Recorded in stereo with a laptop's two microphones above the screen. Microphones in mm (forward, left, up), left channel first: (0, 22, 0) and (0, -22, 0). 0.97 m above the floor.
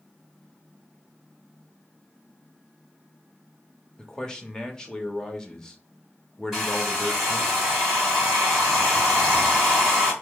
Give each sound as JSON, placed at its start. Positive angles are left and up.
{"t": 4.0, "sound": "a man speaking", "side_deg": 15, "distance_m": 1.5}
{"t": 6.5, "sound": "a hair dryer", "side_deg": -5, "distance_m": 2.5}